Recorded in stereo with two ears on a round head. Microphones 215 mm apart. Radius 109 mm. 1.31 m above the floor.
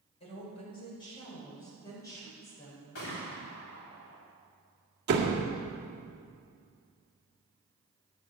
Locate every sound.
0.2 s a woman speaking: 25° left (ahead or behind), 6 m; by 2.9 s 10° left (ahead or behind), 6.5 m
3.0 s a gunshot: 60° left (ahead or behind), 4 m
5.1 s a door slam: 45° right (ahead or behind), 1.9 m